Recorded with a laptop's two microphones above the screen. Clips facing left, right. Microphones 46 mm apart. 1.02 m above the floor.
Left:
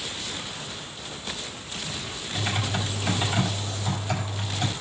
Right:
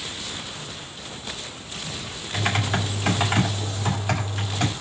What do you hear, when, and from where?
2.3 s typing on a keyboard: 65° right (ahead or behind), 1.9 m